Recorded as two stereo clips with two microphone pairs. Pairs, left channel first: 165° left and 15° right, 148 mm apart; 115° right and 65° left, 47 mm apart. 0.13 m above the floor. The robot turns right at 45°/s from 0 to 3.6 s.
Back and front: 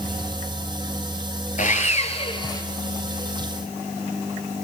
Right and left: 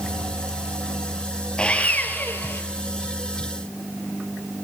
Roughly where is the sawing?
Behind.